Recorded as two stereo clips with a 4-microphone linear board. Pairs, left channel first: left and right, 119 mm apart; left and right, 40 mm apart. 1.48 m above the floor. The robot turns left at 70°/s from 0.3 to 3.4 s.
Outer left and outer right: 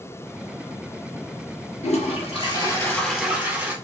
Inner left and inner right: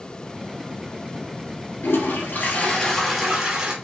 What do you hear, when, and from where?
1.8 s a toilet flushing: 90° left, 2 m; by 3.7 s 20° right, 2 m